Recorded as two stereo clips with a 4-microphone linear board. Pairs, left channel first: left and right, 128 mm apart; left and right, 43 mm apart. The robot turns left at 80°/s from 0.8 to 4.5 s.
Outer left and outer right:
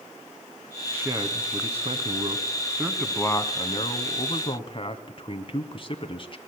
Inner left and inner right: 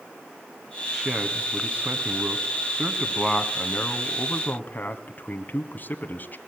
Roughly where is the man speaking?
Ahead.